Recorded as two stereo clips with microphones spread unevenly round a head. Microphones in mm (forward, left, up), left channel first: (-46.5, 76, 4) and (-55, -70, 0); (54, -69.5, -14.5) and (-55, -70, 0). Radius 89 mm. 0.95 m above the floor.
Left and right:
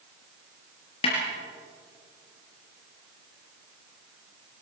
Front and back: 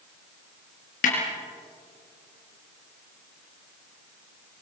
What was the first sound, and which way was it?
A snare drum, 25° left.